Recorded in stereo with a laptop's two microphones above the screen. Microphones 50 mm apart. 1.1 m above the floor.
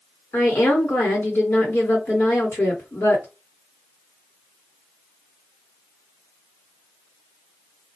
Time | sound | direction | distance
0.3 | a woman speaking | 65° left (ahead or behind) | 1.3 m